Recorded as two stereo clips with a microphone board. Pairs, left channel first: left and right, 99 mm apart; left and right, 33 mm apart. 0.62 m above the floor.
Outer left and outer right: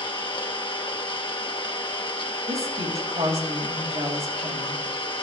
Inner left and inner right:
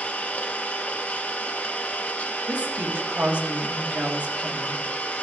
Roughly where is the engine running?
Left.